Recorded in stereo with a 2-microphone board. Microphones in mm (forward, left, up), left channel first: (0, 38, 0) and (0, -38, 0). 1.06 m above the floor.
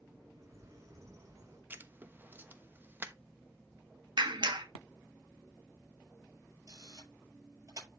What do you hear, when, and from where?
0.3 s a bird: 40° right (ahead or behind), 5 m
1.7 s writing: 25° right (ahead or behind), 0.9 m
4.2 s a clap: 80° right, 1.3 m
6.7 s a camera shutter: 45° right (ahead or behind), 7 m